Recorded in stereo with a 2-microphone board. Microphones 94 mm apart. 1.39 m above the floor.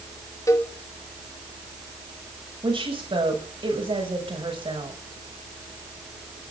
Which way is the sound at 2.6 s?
70° right (ahead or behind).